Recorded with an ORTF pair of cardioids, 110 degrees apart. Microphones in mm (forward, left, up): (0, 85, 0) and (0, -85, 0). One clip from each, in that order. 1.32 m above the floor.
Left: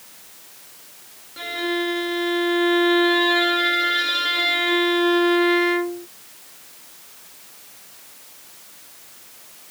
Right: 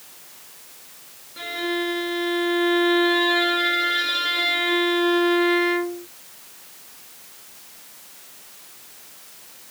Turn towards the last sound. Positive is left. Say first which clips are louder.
# left 1 dB
turn(degrees=10)